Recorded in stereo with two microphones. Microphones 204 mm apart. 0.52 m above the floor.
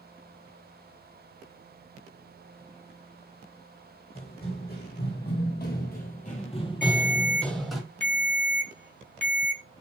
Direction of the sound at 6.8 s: 40° left (ahead or behind).